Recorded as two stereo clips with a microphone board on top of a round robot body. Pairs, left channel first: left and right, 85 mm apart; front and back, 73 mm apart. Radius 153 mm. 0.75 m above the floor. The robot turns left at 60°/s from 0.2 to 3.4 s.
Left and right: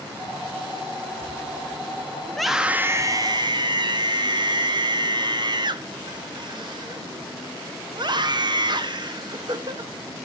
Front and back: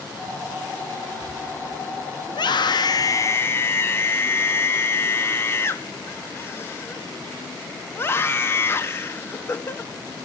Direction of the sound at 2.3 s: 10° left.